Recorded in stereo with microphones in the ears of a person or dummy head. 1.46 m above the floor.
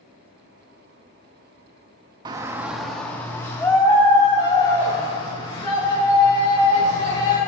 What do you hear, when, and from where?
2.2 s a shout: 20° right (ahead or behind), 0.6 m; by 7.4 s 25° left (ahead or behind), 3.5 m